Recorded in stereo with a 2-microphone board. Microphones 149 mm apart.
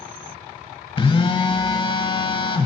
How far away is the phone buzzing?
About 0.8 m.